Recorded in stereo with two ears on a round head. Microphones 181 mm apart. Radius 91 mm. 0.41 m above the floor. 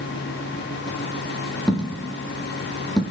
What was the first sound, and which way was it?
A dropped coin, centre (ahead or behind).